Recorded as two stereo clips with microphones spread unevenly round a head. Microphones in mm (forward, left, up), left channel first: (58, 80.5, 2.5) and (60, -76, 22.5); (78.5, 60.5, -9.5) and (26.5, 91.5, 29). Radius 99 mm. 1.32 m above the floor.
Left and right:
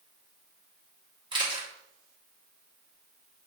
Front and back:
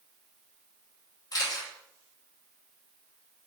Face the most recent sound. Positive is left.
turn(degrees=-30)